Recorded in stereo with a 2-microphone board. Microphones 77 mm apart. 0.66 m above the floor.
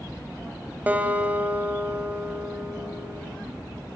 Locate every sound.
0.9 s a guitar: 20° right (ahead or behind), 3 m